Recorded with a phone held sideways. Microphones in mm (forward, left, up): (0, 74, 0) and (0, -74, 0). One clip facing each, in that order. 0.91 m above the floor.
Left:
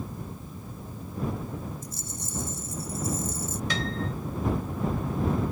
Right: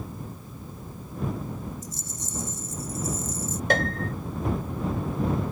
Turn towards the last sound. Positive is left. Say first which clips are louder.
# right 7 dB
turn(degrees=-60)  # may be behind; listen again after turning